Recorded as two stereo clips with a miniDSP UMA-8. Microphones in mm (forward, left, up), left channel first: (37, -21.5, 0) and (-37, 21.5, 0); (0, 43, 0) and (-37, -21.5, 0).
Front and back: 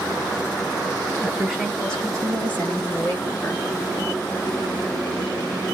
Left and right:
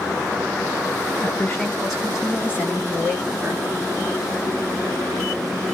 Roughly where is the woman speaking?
Left.